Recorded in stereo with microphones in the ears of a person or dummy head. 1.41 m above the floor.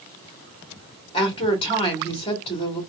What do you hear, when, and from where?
1.1 s a woman speaking: 35° left (ahead or behind), 1.4 m